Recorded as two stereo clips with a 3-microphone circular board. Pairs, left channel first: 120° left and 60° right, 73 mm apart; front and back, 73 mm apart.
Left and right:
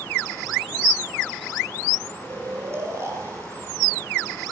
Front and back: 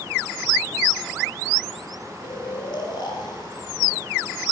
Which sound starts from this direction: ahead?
Snoring, at 2.2 s.